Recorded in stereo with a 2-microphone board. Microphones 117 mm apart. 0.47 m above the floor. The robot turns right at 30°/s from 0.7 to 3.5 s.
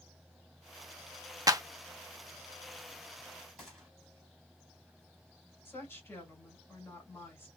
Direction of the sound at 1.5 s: 30° right (ahead or behind).